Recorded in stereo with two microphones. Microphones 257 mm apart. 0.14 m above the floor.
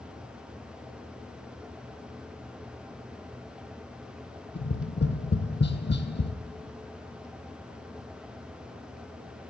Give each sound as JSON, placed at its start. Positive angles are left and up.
{"t": 4.5, "sound": "tapping", "side_deg": 45, "distance_m": 1.0}